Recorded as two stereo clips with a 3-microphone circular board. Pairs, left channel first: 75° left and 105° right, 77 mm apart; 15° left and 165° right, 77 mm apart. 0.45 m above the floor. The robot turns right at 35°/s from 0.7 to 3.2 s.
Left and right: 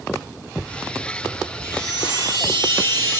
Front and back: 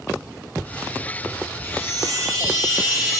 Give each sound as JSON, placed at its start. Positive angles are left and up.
{"t": 1.6, "sound": "a chime", "azimuth_deg": -145, "distance_m": 5.0}